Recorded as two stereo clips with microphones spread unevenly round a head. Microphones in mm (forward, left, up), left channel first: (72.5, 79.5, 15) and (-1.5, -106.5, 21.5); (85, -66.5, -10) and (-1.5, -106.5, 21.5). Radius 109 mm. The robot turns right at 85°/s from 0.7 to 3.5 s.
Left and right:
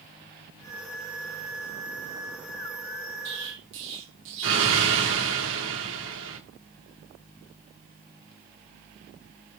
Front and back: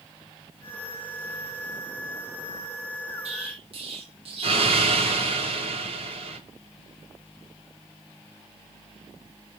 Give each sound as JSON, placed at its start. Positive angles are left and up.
{"t": 3.2, "sound": "an explosion", "azimuth_deg": -150, "distance_m": 1.4}